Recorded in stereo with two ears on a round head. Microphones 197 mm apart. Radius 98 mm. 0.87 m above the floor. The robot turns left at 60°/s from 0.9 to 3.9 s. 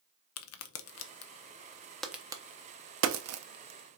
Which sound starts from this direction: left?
A crack, at 0.4 s.